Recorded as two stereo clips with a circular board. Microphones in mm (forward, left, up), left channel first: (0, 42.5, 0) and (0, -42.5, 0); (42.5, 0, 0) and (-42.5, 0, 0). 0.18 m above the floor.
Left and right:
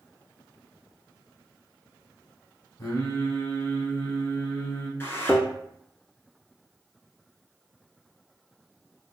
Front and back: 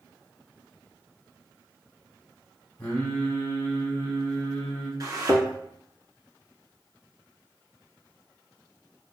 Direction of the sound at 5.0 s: 150° left.